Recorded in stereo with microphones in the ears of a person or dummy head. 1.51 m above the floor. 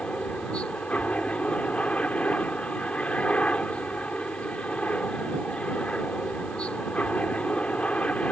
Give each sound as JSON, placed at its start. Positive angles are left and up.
{"t": 0.0, "sound": "a helicopter", "side_deg": 5}